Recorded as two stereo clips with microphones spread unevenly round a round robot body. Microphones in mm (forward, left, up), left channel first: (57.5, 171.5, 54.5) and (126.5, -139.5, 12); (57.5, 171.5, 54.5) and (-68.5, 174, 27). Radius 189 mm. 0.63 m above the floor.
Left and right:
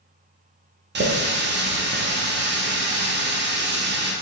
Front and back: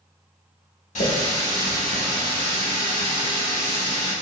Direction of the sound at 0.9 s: 30° right.